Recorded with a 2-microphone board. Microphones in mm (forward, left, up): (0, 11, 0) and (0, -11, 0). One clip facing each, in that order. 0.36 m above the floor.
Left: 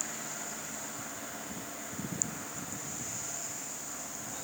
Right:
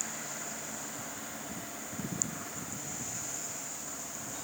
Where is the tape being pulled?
No tape being pulled in this recording.